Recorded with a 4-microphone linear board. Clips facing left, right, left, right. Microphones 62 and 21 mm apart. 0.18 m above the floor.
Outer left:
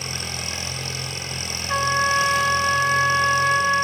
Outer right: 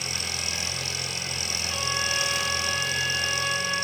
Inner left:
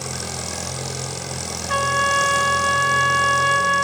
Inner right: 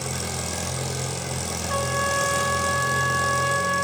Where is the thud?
No thud in this recording.